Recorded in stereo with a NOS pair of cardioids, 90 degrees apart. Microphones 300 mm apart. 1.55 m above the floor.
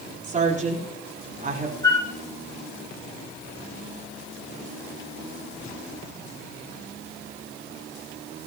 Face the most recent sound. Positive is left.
turn(degrees=15)